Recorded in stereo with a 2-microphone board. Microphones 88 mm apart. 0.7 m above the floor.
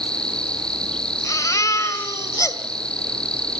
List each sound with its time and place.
0.0 s an insect: 10° left (ahead or behind), 1.6 m
1.2 s a baby crying: 40° left (ahead or behind), 2 m